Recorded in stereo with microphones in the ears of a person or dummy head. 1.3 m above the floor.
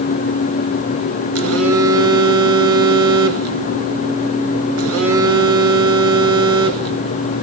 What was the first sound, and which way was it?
A phone buzzing, 70° right (ahead or behind).